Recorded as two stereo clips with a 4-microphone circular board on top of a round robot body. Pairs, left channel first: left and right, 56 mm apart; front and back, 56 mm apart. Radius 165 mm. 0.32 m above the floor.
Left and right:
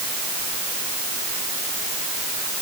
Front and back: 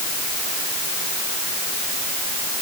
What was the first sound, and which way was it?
Only background noise.